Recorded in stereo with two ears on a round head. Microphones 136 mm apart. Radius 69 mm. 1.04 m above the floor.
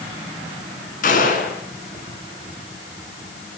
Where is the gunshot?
55° left (ahead or behind), 5 m.